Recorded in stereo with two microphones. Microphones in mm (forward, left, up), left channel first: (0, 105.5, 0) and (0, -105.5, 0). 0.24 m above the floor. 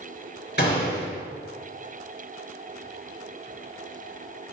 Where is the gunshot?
55° left (ahead or behind), 2.5 m.